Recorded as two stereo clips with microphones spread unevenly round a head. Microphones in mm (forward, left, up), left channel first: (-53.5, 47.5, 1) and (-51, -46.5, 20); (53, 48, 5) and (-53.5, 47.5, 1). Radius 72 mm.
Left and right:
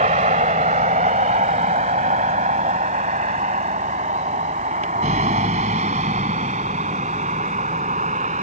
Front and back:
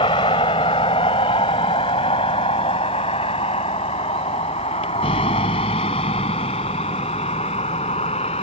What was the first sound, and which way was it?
A vehicle, 60° right.